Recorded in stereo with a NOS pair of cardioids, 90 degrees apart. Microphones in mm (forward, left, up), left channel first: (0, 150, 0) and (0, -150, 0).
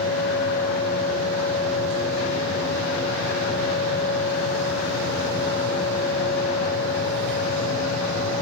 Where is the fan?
55° left, 4 m.